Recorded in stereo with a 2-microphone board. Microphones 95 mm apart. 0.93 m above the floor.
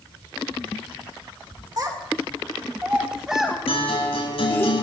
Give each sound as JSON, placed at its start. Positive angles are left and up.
{"t": 1.8, "sound": "a child speaking", "side_deg": -40, "distance_m": 2.0}
{"t": 3.7, "sound": "a guitar", "side_deg": 80, "distance_m": 5.5}